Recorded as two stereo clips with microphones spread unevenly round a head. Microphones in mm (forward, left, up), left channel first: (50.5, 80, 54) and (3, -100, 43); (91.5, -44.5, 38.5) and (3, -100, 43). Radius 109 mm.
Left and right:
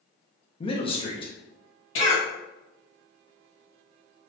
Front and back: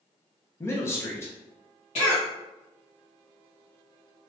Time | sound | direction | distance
0.6 | a man speaking | 50° left | 0.7 m
1.9 | a cough | 70° left | 1.6 m